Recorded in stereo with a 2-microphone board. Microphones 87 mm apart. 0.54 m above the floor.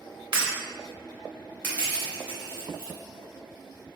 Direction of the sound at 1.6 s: 15° right (ahead or behind).